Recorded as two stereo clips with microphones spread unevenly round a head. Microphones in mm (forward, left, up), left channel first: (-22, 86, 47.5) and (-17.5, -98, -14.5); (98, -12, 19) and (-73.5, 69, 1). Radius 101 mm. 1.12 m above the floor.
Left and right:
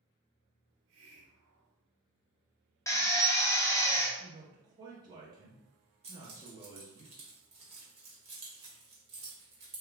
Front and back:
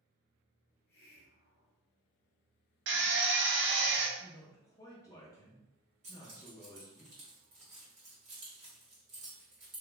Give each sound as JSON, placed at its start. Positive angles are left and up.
{"t": 0.7, "sound": "a hiss", "azimuth_deg": -70, "distance_m": 0.8}
{"t": 2.9, "sound": "a drill", "azimuth_deg": 175, "distance_m": 0.8}
{"t": 4.2, "sound": "a man speaking", "azimuth_deg": -95, "distance_m": 0.6}
{"t": 6.0, "sound": "keys jangling", "azimuth_deg": -150, "distance_m": 1.3}